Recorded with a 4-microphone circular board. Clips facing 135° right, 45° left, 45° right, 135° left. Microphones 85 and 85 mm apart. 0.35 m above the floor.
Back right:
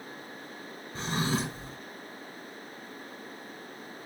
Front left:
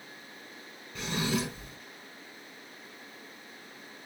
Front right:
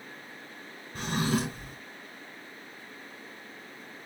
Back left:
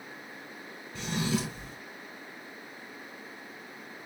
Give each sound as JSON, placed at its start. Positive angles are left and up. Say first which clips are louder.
{"t": 0.9, "sound": "a drawer", "louder": "back right 1 dB, front right 2 dB", "azimuth_deg": -85, "distance_m": 2.0}